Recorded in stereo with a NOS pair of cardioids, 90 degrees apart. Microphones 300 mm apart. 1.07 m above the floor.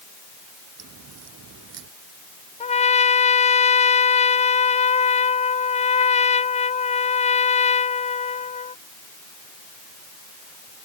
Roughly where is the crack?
Ahead right.